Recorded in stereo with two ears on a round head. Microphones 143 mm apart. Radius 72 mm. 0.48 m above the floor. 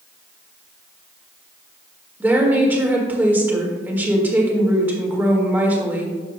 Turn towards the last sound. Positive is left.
turn(degrees=-10)  # may be behind; listen again after turning